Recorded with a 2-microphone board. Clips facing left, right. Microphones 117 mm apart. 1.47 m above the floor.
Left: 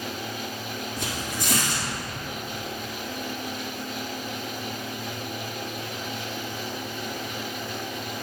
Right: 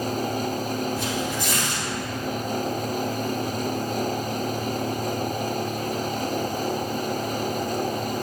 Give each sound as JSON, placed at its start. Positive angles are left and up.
{"t": 1.0, "sound": "tearing paper", "side_deg": 65, "distance_m": 3.5}